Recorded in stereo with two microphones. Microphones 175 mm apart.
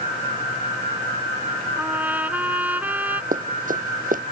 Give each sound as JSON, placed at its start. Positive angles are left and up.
{"t": 1.8, "sound": "a trumpet", "side_deg": -10}
{"t": 3.3, "sound": "running footsteps", "side_deg": -55}